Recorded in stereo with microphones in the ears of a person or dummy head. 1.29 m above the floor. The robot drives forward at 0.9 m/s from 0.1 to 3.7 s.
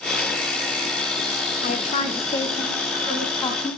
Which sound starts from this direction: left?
A woman speaking, at 1.6 s.